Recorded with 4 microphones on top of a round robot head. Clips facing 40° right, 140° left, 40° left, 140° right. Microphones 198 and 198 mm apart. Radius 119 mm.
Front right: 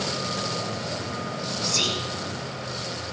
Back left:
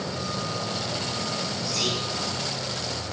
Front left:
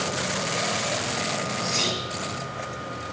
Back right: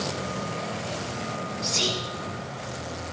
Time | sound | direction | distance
1.6 | whispering | 80° right | 6.5 m